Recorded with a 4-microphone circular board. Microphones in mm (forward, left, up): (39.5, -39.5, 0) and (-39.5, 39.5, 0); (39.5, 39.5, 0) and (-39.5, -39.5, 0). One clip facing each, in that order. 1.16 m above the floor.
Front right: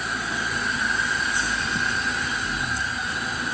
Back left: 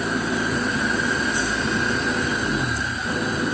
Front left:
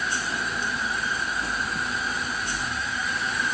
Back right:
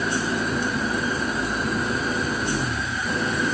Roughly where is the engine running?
Behind.